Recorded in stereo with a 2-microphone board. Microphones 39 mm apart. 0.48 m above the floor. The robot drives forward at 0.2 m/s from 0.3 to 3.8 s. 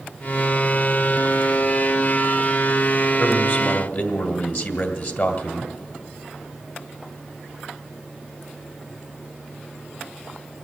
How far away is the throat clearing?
I don't hear throat clearing.